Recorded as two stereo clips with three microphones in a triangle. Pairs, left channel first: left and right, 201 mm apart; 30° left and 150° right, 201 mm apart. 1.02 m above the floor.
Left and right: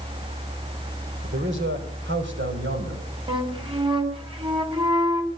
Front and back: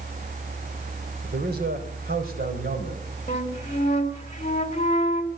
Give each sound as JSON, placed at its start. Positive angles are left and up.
{"t": 1.2, "sound": "a man speaking", "azimuth_deg": -110, "distance_m": 4.0}
{"t": 3.3, "sound": "a flute", "azimuth_deg": -25, "distance_m": 2.5}